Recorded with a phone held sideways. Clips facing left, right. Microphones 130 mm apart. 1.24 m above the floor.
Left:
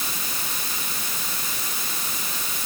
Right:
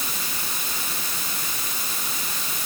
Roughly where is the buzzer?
No buzzer in this recording.